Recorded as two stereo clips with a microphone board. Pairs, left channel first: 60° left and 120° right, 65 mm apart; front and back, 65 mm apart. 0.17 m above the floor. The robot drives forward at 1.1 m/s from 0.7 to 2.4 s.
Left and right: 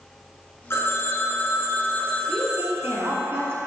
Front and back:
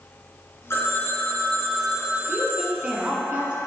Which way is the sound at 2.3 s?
110° right.